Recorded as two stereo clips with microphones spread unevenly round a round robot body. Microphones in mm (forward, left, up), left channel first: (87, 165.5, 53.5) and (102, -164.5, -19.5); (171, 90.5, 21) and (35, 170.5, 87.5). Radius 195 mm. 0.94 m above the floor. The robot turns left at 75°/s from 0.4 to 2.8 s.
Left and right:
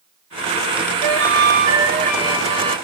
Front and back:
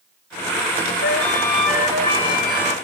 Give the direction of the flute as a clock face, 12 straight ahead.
3 o'clock.